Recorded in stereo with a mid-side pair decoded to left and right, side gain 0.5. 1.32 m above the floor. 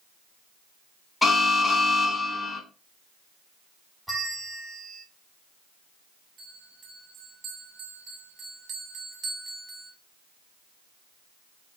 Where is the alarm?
20° left, 3 m.